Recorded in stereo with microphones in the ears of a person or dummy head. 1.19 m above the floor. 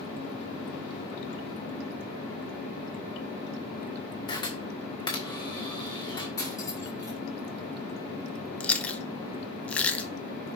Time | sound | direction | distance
4.3 | a camera shutter | 25° left (ahead or behind) | 1.8 m
6.4 | cutlery clinking | 15° left (ahead or behind) | 3.5 m
8.6 | chewing | 5° left (ahead or behind) | 0.8 m